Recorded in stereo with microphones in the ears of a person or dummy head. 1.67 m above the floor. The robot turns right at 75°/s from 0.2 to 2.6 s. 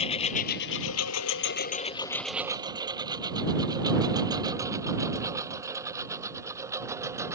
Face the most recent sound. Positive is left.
turn(degrees=-15)  # may be behind; listen again after turning